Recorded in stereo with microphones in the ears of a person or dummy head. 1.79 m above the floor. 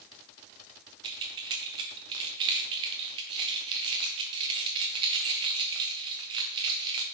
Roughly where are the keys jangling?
Right.